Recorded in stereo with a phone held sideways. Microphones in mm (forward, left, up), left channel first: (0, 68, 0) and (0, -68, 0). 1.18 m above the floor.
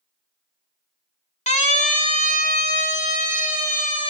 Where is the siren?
55° left (ahead or behind), 2.5 m; by 4.1 s 90° left, 5 m.